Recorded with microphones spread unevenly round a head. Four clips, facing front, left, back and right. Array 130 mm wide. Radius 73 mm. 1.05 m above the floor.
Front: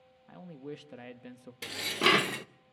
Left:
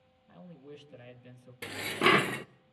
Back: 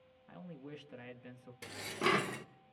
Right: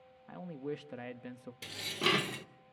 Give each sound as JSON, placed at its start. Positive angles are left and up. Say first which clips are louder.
{"t": 0.3, "sound": "a man speaking", "louder": "right 9 dB, front 5 dB", "azimuth_deg": -100, "distance_m": 1.4}
{"t": 1.6, "sound": "dishes clattering", "louder": "left 7 dB, front 5 dB", "azimuth_deg": 45, "distance_m": 0.5}